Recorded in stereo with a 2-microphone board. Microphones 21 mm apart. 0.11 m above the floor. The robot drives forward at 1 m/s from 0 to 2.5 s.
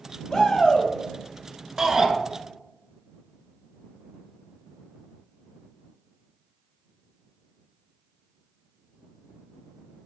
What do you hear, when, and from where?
0.3 s a shout: 30° left (ahead or behind), 3 m; by 0.9 s 35° left (ahead or behind), 2.5 m
1.8 s a shout: 25° right (ahead or behind), 1.5 m